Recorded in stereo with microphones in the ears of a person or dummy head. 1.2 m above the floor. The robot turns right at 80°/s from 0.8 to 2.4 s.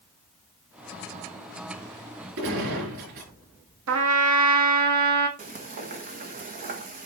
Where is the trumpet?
85° right, 1.6 m.